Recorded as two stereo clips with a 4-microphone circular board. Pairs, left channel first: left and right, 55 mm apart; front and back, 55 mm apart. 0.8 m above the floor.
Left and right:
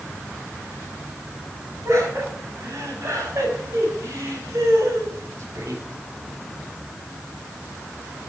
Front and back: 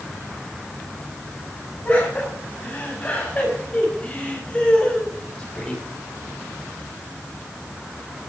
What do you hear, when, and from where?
1.9 s laughter: 65° right, 7.5 m; by 5.8 s 75° right, 3.5 m